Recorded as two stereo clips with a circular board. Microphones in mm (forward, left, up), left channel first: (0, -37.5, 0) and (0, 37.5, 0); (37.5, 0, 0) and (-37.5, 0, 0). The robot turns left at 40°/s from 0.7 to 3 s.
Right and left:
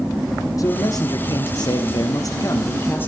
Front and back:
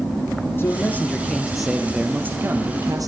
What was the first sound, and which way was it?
A man speaking, 55° right.